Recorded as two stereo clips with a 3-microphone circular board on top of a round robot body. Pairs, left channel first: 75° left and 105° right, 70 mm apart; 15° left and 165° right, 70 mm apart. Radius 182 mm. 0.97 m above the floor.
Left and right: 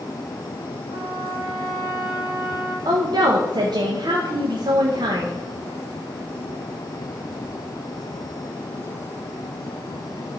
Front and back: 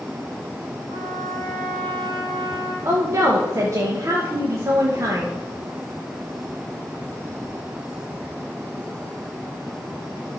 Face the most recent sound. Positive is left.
turn(degrees=-115)